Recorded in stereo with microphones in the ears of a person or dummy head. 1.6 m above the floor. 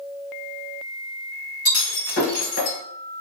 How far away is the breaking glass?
About 2 m.